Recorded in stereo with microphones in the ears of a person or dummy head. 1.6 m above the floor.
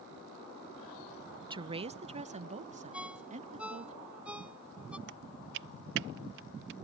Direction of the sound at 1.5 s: 30° right (ahead or behind).